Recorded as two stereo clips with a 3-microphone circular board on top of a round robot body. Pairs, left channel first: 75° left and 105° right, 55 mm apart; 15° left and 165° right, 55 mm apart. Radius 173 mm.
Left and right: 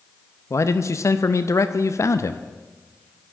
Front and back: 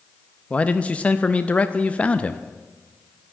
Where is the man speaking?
80° left, 0.8 m.